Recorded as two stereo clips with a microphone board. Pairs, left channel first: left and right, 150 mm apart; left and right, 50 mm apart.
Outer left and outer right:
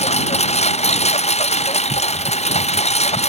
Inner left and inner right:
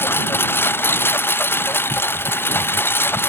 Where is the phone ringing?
I don't hear a phone ringing.